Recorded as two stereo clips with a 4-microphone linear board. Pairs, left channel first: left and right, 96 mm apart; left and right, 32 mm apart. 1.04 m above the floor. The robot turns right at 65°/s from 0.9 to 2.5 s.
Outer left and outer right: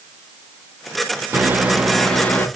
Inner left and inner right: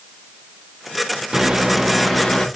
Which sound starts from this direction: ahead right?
A microwave, at 1.3 s.